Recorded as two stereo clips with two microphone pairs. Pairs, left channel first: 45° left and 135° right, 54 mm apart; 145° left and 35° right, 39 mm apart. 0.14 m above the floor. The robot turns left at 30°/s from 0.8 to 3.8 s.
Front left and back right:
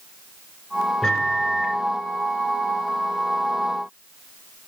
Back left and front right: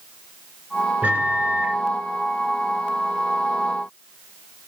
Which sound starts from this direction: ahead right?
A microwave, at 1.0 s.